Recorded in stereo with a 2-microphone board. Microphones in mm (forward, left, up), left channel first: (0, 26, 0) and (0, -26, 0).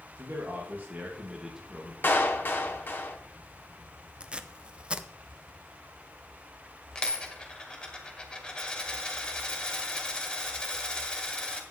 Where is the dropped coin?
15° left (ahead or behind), 2 m.